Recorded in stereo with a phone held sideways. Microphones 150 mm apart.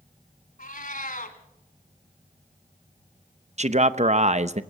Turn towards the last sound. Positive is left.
turn(degrees=-50)  # may be behind; listen again after turning